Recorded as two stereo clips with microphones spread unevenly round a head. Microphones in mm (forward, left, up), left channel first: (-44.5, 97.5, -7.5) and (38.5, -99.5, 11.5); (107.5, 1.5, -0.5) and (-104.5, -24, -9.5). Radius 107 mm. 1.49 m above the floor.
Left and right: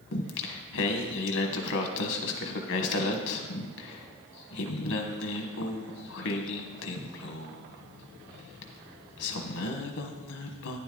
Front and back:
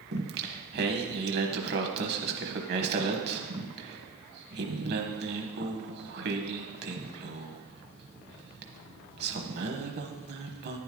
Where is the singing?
145° left, 1.3 m.